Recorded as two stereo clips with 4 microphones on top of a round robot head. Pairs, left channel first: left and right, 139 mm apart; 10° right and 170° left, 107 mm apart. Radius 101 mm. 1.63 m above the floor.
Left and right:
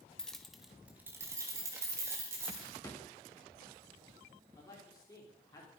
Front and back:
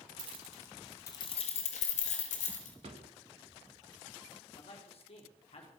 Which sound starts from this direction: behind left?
A drawer, at 2.8 s.